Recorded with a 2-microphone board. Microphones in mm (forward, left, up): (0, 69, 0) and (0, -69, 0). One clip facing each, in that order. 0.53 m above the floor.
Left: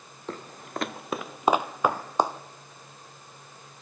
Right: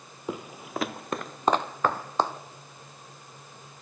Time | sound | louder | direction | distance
0.3 | footsteps | right 2 dB | 10° right (ahead or behind) | 0.6 m